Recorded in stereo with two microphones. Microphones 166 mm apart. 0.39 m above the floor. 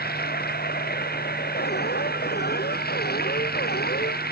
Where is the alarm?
80° left.